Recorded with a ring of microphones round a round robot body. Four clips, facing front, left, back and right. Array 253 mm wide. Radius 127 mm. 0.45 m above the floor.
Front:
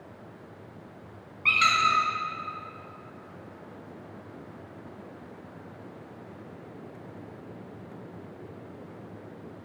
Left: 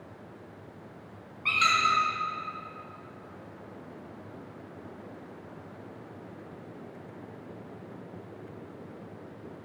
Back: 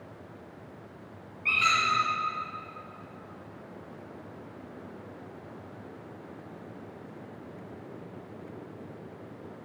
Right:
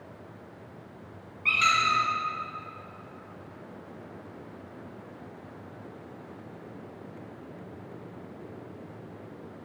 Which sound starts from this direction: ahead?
A squeak, at 1.4 s.